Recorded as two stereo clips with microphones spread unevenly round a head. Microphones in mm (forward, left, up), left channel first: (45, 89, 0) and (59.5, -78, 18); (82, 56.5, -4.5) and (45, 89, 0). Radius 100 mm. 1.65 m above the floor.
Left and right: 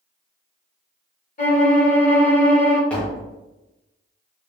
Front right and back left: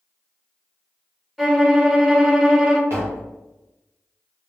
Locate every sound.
1.4 s a violin: 50° left, 1.1 m
2.9 s tapping: straight behind, 0.5 m